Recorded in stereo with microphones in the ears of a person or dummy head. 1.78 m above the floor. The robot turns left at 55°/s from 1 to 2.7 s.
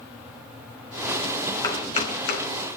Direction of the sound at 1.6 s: 20° left (ahead or behind).